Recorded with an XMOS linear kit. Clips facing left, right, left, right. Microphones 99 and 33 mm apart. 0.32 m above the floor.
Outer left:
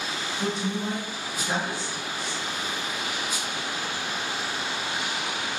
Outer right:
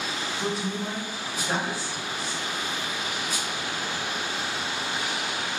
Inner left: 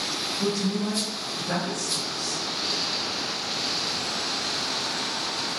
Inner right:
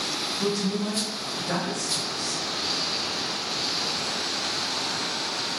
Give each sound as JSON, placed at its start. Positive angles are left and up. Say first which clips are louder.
{"t": 0.4, "sound": "a woman speaking", "louder": "outer left 2 dB, even", "side_deg": 0, "distance_m": 1.7}